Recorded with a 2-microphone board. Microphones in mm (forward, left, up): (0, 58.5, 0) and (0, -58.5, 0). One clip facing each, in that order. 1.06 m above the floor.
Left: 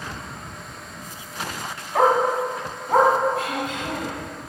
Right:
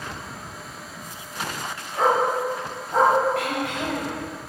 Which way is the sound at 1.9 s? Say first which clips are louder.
Left 2 dB; 75° left (ahead or behind).